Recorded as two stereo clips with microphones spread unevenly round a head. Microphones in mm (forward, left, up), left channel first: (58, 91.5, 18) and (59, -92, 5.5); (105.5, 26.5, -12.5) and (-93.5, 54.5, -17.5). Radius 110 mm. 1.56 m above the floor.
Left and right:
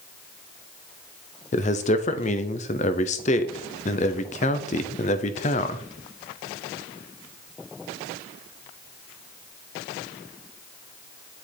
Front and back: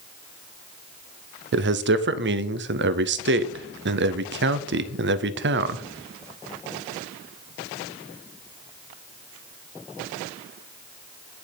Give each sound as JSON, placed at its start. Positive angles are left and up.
{"t": 1.5, "sound": "a man speaking", "azimuth_deg": 145, "distance_m": 0.5}